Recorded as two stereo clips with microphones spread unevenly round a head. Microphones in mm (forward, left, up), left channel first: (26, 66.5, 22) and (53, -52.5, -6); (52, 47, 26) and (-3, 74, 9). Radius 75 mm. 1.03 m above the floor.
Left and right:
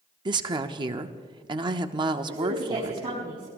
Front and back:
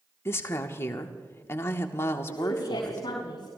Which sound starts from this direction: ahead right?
A woman speaking, at 2.3 s.